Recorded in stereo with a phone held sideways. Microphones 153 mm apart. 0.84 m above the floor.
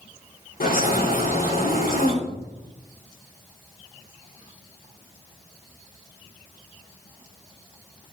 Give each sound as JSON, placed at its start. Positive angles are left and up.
{"t": 0.6, "sound": "a bird", "side_deg": 70, "distance_m": 3.0}
{"t": 2.2, "sound": "a cupboard door", "side_deg": 35, "distance_m": 3.0}